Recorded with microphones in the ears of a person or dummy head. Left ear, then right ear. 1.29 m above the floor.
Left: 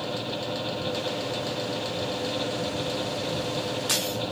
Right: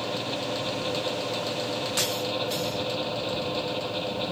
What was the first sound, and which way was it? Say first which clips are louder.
A fan: right 1 dB; 10° right (ahead or behind).